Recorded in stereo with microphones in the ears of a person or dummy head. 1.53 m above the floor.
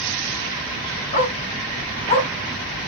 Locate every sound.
1.1 s a dog barking: 40° left (ahead or behind), 3 m; by 2.3 s 30° left (ahead or behind), 2.5 m